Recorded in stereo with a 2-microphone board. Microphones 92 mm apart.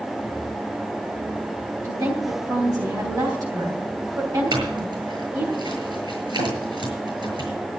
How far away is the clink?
About 7.5 m.